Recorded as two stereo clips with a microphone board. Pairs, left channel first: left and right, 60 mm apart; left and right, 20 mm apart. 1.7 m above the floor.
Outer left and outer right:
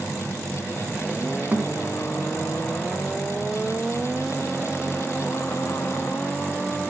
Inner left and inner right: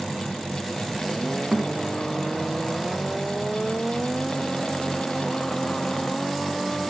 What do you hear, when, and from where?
1.5 s a thud: 25° right (ahead or behind), 1.1 m